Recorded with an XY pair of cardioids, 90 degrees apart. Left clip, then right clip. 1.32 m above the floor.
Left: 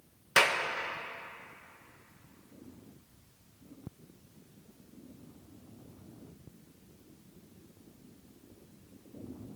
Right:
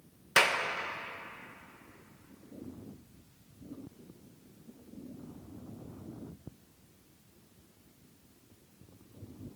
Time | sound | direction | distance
0.4 | a clap | 5° right | 1.2 m